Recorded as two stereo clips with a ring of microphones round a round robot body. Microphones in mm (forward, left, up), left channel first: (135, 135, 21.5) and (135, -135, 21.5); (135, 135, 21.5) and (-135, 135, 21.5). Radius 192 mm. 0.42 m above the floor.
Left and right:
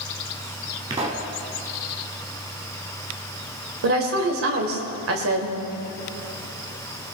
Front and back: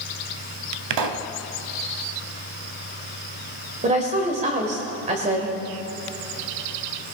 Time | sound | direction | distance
0.9 | a pop | 165° right | 0.7 m
3.8 | a woman speaking | 115° right | 1.7 m